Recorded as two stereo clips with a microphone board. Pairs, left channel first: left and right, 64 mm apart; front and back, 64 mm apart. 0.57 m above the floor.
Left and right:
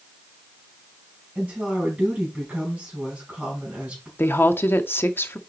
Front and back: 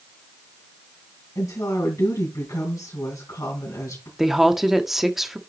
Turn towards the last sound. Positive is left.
turn(degrees=95)